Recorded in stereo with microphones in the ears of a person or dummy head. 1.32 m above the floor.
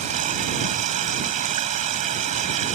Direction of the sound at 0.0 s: 50° right (ahead or behind).